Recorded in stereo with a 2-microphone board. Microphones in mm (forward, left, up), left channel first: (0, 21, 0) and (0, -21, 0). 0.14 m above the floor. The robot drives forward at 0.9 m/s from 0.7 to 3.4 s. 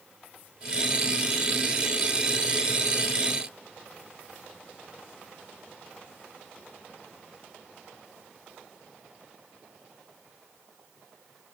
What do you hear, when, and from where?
Only background noise.